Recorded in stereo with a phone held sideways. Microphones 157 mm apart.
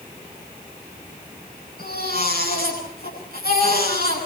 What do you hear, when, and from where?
1.8 s a baby crying: 75° left (ahead or behind), 9.5 m